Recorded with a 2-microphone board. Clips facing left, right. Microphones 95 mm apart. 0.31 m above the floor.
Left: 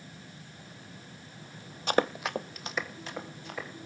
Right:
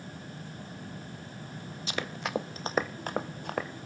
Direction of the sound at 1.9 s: 55° left (ahead or behind).